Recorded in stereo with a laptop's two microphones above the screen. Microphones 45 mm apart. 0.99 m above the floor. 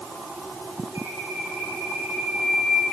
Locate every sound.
0.9 s a bird: 75° right (ahead or behind), 7 m